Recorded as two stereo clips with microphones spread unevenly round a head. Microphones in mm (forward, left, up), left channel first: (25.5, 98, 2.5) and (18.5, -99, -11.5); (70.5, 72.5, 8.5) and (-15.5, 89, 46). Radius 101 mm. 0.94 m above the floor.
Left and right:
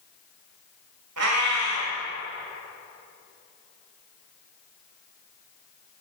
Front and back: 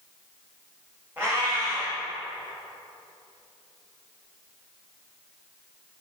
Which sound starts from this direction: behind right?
A cat meowing, at 1.2 s.